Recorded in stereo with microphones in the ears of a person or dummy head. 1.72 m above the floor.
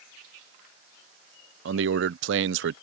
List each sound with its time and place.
1.6 s a man speaking: 80° right